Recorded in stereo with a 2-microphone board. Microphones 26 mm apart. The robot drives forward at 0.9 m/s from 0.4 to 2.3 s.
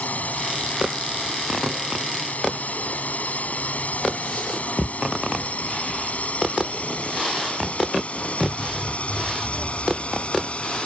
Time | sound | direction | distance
0.0 | a drone | 85° left | ?